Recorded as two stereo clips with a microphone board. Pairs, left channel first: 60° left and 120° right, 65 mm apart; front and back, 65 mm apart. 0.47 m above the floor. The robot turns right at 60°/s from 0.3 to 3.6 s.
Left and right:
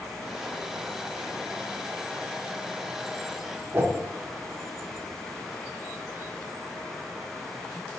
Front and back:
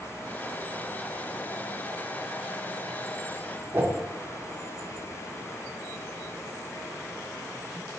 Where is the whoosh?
145° right, 0.5 m.